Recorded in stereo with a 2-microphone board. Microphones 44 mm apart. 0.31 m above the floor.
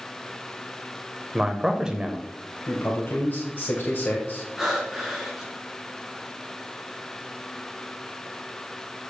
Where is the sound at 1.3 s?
15° right (ahead or behind), 0.9 m.